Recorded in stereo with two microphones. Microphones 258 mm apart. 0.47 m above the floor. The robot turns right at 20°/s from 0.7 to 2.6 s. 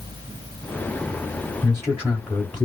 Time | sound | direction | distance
1.6 | a man speaking | 15° left (ahead or behind) | 0.9 m